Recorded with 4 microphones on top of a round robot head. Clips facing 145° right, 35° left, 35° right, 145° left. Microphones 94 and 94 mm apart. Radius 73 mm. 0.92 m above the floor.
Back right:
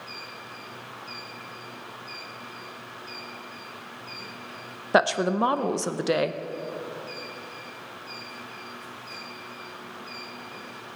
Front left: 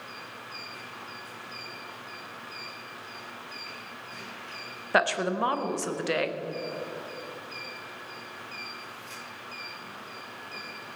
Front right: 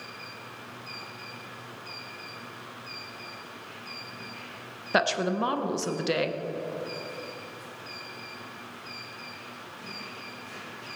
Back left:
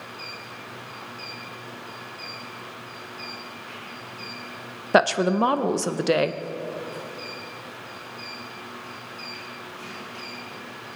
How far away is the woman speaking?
About 0.8 m.